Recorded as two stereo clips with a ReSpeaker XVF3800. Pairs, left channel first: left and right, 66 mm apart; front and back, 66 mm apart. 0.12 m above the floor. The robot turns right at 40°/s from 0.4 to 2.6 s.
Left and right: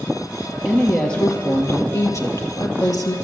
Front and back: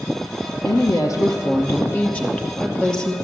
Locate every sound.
0.7 s a woman speaking: straight ahead, 2.5 m; by 3.2 s 80° left, 2.5 m